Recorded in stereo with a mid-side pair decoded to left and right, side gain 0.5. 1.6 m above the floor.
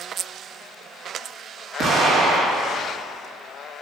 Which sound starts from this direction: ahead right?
An explosion, at 1.8 s.